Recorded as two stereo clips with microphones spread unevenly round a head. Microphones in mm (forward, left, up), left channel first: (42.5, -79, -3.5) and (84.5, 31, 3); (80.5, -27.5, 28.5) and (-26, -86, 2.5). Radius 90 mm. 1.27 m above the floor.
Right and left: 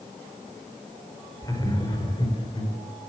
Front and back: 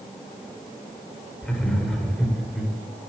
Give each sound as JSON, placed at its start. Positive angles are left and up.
{"t": 1.4, "sound": "laughter", "azimuth_deg": -50, "distance_m": 5.0}